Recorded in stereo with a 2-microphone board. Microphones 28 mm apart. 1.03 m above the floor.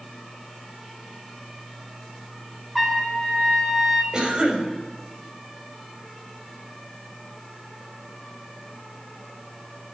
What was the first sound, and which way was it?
A trumpet, centre (ahead or behind).